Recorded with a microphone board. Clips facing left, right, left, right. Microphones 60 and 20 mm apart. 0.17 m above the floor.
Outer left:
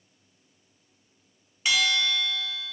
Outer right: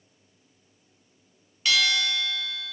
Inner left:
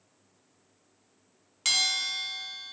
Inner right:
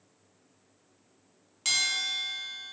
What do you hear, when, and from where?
1.6 s a bell: 20° left (ahead or behind), 0.6 m